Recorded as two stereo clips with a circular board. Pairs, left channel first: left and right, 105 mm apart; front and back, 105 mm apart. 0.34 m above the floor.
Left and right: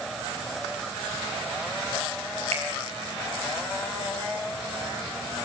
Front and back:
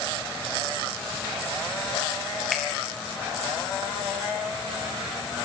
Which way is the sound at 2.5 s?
90° right.